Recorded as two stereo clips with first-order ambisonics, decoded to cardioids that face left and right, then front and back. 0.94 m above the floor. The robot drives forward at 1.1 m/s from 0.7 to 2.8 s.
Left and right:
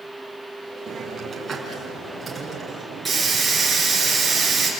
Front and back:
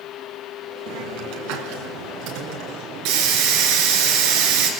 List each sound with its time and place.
0.9 s a hiss: 160° right, 3 m; by 4.7 s 170° right, 5 m